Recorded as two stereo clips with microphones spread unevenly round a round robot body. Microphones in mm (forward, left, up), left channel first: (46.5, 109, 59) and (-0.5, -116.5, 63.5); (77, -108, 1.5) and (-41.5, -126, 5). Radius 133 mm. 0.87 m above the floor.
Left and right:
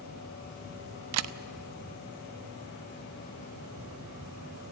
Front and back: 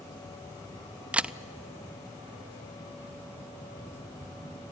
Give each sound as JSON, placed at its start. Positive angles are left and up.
{"t": 1.1, "sound": "a camera shutter", "azimuth_deg": -90, "distance_m": 0.6}